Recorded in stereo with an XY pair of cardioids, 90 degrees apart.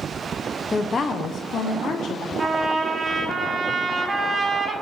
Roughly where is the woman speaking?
Ahead left.